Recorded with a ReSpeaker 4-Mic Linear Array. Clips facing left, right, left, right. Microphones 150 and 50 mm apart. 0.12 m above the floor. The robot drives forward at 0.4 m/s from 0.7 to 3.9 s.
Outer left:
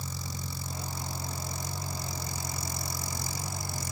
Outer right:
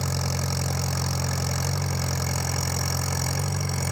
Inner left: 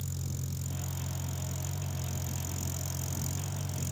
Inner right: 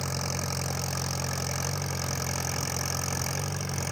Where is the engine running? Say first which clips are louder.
Outer right 11 dB, inner right 8 dB; 75° right (ahead or behind); by 3.9 s 65° right (ahead or behind).